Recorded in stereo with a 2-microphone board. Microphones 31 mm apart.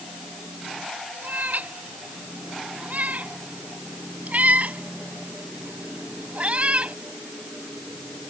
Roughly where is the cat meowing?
Right.